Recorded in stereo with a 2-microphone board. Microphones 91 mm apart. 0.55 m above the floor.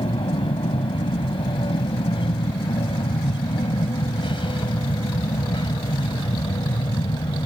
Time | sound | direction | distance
0.0 | an aircraft | 65° left (ahead or behind) | ?